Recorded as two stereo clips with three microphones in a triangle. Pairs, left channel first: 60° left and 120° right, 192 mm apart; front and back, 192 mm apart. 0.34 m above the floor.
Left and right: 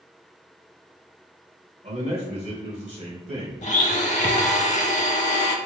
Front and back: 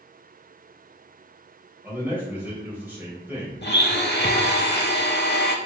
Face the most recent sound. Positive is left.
turn(degrees=10)